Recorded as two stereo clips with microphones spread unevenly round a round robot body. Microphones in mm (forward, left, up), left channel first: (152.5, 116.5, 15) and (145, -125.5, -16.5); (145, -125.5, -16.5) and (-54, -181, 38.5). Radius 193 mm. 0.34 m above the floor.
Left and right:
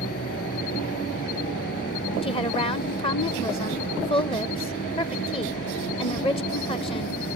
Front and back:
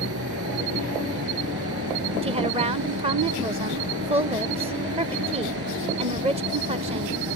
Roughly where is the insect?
Behind left.